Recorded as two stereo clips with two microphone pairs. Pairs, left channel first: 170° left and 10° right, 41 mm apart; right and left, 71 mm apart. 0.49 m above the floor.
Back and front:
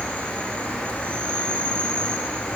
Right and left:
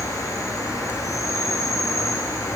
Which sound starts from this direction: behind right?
An insect, at 0.0 s.